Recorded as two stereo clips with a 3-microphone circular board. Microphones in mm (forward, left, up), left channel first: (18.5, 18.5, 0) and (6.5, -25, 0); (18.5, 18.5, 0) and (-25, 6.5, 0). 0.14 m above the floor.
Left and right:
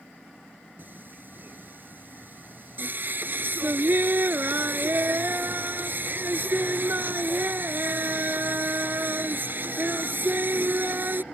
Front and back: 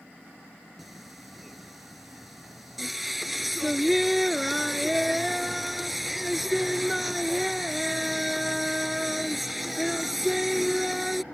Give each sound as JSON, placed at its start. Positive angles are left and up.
{"t": 0.8, "sound": "singing", "azimuth_deg": -80}